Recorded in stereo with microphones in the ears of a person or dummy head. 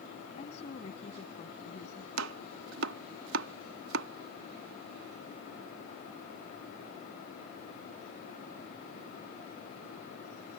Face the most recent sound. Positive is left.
turn(degrees=-75)  # may be behind; listen again after turning